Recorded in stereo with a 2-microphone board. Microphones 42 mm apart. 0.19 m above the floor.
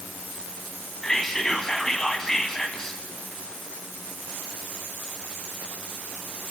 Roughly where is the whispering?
Centre.